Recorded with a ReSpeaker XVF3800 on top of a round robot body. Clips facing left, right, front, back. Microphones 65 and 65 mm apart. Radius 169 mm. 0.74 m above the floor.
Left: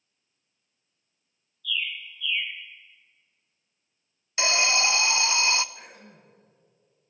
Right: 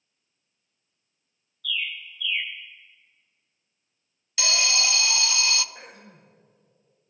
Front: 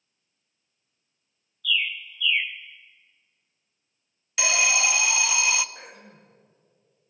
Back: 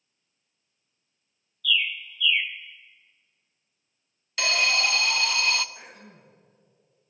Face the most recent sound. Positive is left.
turn(degrees=-40)